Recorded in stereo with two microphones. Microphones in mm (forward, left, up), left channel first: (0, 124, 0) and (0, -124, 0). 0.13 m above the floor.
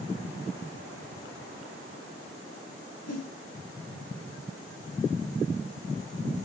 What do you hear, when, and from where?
3.1 s a whoosh: 85° left, 3.5 m